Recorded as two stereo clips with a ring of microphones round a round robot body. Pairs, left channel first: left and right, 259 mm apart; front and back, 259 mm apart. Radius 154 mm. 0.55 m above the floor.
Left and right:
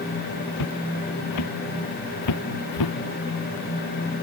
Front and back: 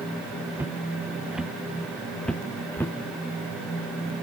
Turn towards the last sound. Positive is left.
turn(degrees=85)